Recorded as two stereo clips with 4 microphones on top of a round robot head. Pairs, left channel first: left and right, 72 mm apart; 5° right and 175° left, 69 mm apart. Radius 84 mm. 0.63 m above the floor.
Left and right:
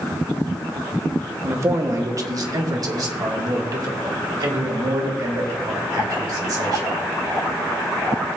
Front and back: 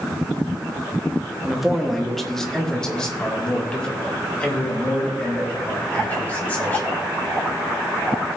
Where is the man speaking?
100° right, 1.3 m; by 7.0 s 70° right, 4.5 m.